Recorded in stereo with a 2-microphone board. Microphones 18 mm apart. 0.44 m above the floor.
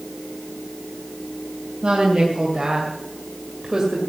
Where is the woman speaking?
55° right (ahead or behind), 3 m; by 4.0 s 20° right (ahead or behind), 2.5 m.